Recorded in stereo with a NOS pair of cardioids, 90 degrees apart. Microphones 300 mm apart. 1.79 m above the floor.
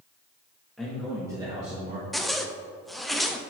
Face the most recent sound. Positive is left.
turn(degrees=0)